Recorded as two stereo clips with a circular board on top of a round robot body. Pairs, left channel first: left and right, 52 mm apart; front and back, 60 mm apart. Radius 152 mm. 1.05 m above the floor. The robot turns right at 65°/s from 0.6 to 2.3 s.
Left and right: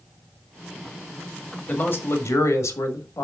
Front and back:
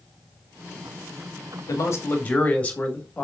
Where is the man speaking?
25° left, 2 m; by 3.2 s 65° left, 2 m.